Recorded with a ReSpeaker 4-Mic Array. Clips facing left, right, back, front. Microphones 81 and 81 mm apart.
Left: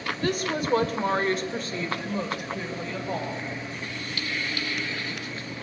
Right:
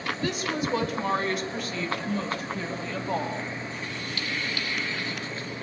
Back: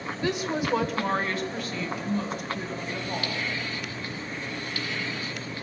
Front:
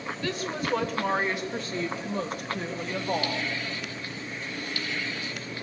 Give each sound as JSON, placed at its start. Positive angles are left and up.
{"t": 0.2, "sound": "a woman speaking", "azimuth_deg": 115, "distance_m": 1.5}